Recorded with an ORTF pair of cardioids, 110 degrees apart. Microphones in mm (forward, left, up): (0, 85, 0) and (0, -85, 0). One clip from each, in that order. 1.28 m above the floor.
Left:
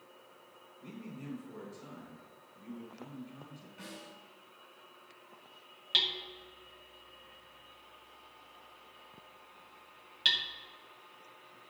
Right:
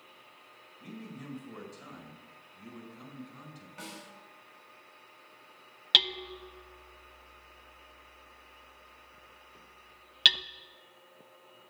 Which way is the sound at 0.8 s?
45° right.